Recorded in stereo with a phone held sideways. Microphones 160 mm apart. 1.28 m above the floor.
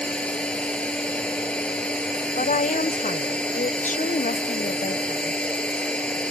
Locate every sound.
0.0 s a machine running: 5° left (ahead or behind)
2.4 s a woman speaking: 50° left (ahead or behind)